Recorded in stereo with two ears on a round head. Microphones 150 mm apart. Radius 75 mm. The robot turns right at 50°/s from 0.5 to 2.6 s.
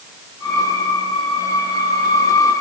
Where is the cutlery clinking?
No cutlery clinking in this recording.